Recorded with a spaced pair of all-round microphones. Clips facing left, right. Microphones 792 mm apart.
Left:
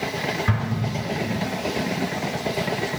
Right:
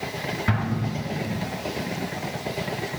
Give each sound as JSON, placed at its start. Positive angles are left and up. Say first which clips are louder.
{"t": 0.5, "sound": "an explosion", "louder": "even", "side_deg": 15, "distance_m": 5.0}